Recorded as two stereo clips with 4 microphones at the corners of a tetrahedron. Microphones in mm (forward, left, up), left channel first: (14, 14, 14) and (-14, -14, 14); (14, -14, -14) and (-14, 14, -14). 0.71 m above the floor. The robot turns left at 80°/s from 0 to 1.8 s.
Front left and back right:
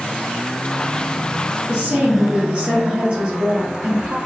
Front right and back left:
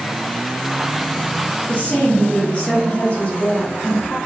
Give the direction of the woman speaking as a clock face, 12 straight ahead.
3 o'clock.